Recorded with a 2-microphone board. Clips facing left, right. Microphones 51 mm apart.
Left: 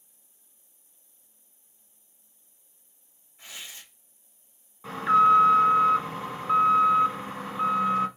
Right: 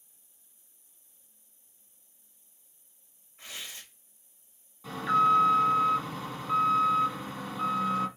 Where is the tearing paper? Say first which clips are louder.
Even; 45° right (ahead or behind), 3 m.